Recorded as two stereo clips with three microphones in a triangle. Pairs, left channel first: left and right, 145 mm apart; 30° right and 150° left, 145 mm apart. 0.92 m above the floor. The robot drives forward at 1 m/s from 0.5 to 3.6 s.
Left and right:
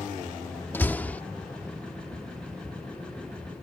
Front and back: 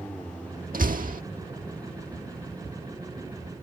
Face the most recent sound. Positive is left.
turn(degrees=175)